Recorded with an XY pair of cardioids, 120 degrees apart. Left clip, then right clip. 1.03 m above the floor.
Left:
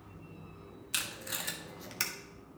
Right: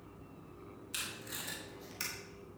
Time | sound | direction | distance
0.9 | tape being pulled | 45° left | 1.5 m